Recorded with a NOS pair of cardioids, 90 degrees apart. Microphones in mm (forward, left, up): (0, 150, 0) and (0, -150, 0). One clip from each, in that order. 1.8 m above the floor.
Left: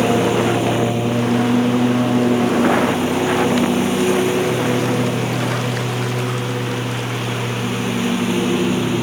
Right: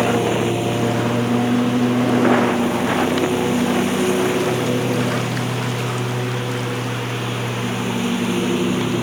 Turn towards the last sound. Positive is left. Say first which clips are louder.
# left 2 dB
turn(degrees=5)